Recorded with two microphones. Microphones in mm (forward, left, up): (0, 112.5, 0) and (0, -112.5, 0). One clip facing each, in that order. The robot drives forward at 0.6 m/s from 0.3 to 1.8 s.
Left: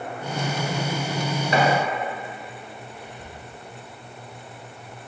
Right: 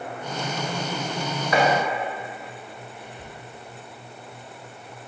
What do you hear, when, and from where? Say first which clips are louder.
1.5 s chopping: right 1 dB; 30° left (ahead or behind), 1.0 m
3.0 s whispering: even; centre (ahead or behind), 1.9 m